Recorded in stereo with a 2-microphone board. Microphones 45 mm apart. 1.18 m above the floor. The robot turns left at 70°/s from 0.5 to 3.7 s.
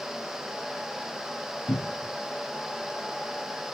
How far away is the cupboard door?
About 0.7 m.